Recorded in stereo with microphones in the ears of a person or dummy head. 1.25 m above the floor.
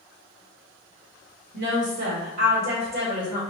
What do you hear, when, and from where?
1.5 s a woman speaking: 60° right (ahead or behind), 2.0 m; by 3.4 s 35° right (ahead or behind), 2.5 m